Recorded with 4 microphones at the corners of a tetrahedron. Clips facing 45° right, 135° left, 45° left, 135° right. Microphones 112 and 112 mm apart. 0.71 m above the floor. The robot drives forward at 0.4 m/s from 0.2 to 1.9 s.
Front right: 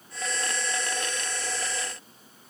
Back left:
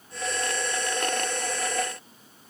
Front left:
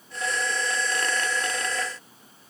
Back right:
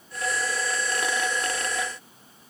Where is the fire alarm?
I don't hear a fire alarm.